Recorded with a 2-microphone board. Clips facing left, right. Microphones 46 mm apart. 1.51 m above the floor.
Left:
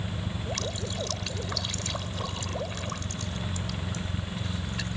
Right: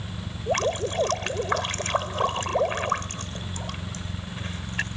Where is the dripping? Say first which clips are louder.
Right 13 dB; 45° right (ahead or behind).